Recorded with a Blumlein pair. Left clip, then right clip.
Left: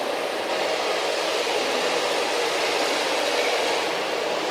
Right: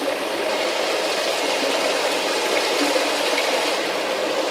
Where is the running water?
30° right, 2.5 m.